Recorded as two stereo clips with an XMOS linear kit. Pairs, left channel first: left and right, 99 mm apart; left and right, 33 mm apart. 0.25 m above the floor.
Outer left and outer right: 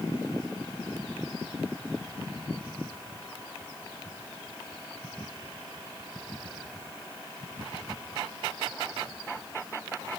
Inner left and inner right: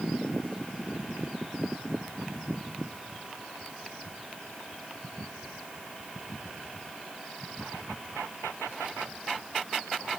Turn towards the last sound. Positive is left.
No sound to turn to.